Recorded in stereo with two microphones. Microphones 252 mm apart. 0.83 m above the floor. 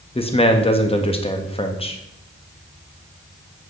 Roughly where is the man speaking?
Left.